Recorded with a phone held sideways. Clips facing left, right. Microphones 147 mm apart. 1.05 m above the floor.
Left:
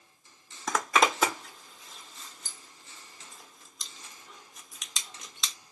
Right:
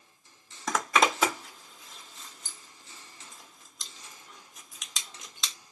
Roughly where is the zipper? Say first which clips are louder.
Even; centre.